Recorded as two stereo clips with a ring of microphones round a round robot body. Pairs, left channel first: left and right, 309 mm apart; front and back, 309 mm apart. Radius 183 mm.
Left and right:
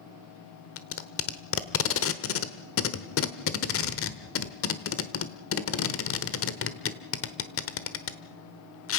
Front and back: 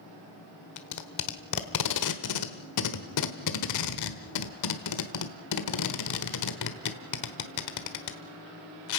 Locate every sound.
0.8 s tape being pulled: 40° left, 1.2 m